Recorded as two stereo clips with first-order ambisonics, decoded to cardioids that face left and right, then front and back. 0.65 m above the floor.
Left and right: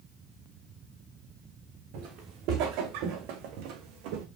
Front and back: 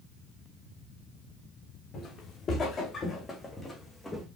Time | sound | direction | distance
1.9 | footsteps | 60° right | 3 m